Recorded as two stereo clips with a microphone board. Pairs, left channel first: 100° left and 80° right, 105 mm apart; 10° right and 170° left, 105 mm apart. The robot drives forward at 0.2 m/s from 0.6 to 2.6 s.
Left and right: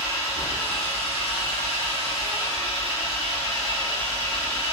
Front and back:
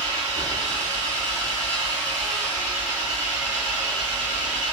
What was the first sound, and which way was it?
An engine running, 165° left.